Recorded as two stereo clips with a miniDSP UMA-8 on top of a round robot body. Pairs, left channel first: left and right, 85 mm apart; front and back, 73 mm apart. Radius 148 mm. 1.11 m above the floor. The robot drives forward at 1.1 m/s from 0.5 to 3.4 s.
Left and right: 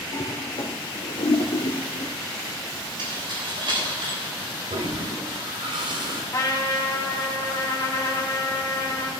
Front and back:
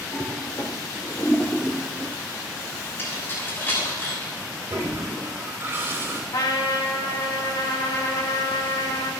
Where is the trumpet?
35° left, 3 m.